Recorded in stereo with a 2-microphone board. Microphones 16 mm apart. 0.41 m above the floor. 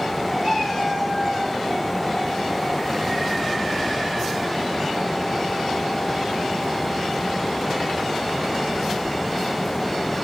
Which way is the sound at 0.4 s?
20° right (ahead or behind).